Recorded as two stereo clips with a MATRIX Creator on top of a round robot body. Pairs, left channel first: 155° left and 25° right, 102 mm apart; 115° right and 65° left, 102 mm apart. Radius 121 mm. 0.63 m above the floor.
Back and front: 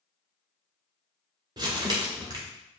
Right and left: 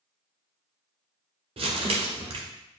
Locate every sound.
1.6 s crumpling: 30° left, 0.7 m